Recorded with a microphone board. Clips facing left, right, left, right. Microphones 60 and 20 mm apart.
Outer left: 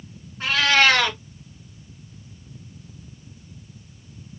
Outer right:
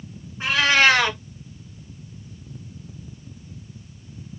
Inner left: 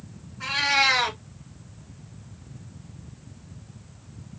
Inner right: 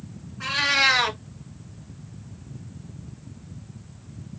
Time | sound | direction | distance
0.4 | a cat meowing | 15° right (ahead or behind) | 1.5 m